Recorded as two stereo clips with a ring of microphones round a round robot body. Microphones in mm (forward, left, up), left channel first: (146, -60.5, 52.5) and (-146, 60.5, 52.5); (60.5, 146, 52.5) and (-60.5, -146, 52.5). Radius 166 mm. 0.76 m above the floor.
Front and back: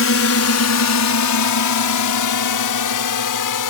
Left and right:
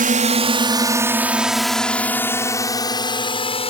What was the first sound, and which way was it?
A drone, 55° right.